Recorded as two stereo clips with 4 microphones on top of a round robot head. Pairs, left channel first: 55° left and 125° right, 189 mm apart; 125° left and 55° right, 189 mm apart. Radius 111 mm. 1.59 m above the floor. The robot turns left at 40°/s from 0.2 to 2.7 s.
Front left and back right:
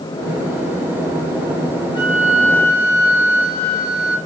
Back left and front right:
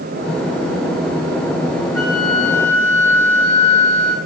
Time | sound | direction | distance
1.9 | a flute | 125° left | 2 m